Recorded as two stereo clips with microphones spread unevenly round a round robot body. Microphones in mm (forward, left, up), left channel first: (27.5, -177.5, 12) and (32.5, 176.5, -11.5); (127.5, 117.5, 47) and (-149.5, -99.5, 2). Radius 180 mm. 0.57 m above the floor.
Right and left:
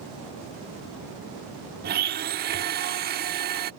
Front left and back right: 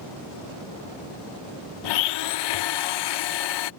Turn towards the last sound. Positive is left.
turn(degrees=30)